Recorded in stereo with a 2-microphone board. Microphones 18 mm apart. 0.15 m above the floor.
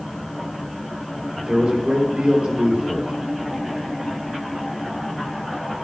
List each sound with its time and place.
1.4 s a man speaking: 60° right (ahead or behind), 3.5 m